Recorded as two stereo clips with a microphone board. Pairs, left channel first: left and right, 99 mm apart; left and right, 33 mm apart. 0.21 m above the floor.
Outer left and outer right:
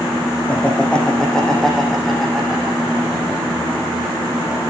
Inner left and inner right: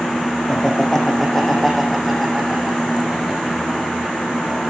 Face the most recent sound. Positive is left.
turn(degrees=-15)  # may be behind; listen again after turning